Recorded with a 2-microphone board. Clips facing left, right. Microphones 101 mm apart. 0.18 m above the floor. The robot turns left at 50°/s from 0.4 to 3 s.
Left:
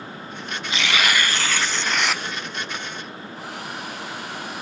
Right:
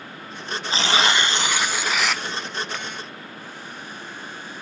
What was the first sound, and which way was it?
Tearing paper, 110° right.